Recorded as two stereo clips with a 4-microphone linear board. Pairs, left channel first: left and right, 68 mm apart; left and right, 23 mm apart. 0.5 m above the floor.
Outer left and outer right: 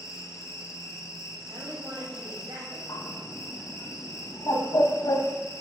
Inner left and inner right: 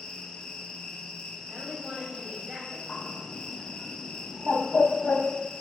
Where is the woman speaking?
70° right (ahead or behind), 3 m.